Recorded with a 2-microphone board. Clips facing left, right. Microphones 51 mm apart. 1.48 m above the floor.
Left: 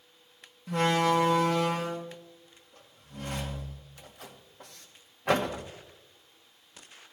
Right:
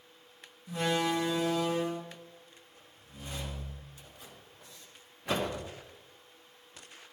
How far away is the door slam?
About 1.5 m.